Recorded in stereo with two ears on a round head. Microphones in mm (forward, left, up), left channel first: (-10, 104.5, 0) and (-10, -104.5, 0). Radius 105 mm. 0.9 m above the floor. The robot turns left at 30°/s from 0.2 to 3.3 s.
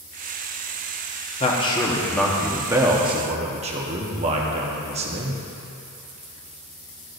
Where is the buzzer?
I don't hear a buzzer.